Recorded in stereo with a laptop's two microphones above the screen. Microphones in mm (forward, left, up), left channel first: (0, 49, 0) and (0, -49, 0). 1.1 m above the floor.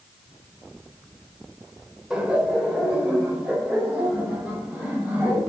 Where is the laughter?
5° right (ahead or behind), 4.5 m; by 5.4 s 15° right (ahead or behind), 6.5 m.